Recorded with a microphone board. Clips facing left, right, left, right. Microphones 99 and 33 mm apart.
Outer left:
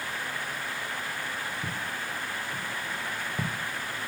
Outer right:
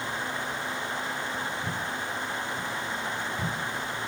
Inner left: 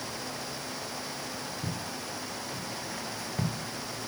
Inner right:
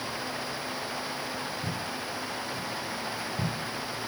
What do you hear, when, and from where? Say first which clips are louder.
1.6 s footsteps: outer right 2 dB, inner right 3 dB; 70° left (ahead or behind), 2 m; by 3.5 s 50° left (ahead or behind), 1.2 m